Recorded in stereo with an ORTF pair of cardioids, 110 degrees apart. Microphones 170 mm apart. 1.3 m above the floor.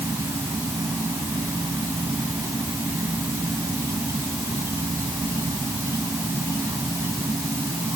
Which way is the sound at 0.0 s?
15° right.